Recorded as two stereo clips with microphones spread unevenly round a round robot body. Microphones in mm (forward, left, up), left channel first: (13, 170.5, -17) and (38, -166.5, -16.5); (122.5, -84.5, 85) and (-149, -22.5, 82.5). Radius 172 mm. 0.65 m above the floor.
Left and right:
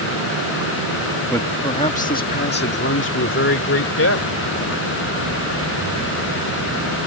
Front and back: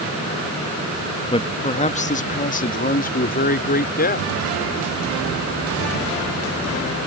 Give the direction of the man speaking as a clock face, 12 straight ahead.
11 o'clock.